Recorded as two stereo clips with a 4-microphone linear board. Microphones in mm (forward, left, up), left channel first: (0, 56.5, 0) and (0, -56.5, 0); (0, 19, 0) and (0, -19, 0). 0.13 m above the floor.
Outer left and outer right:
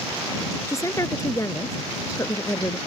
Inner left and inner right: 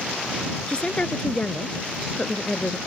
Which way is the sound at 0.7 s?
30° left (ahead or behind).